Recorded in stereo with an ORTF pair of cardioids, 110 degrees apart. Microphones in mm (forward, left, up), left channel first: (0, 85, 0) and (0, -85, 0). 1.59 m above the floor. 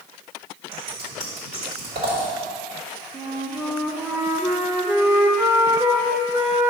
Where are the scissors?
60° right, 2.5 m.